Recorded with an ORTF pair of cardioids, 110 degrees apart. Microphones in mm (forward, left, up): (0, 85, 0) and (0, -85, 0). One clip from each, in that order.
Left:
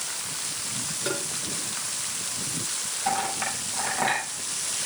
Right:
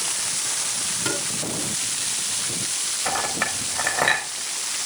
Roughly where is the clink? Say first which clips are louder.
Right 1 dB; ahead right.